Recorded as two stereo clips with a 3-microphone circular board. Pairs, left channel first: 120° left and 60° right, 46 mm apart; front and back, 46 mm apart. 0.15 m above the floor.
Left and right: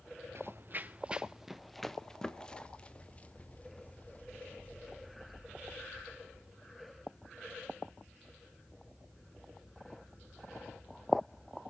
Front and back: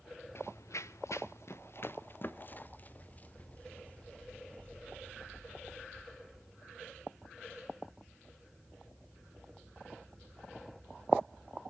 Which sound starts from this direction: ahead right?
Running footsteps, at 0.3 s.